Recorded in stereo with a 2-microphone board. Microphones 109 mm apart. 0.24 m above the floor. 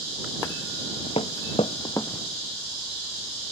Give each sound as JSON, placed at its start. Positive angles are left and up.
{"t": 0.9, "sound": "footsteps", "side_deg": 55}